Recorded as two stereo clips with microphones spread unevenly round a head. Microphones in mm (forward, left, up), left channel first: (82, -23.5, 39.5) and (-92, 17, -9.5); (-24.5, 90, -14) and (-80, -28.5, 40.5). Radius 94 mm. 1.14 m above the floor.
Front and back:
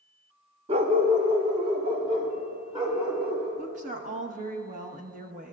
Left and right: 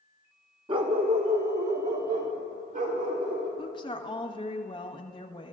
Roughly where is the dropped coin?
I don't hear a dropped coin.